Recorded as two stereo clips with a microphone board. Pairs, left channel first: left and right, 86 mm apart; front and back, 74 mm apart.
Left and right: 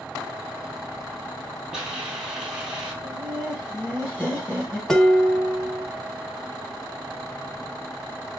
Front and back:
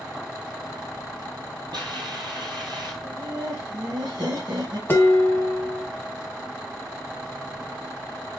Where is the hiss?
170° right, 2 m.